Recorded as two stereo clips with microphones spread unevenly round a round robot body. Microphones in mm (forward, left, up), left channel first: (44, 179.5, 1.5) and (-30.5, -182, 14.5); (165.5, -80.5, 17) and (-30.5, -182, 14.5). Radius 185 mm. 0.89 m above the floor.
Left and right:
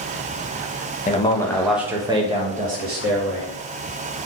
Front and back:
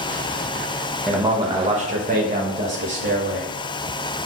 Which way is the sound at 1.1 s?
125° left.